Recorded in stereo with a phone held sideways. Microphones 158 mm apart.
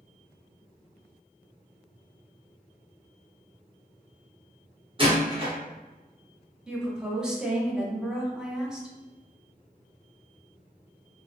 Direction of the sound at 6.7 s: 5° right (ahead or behind).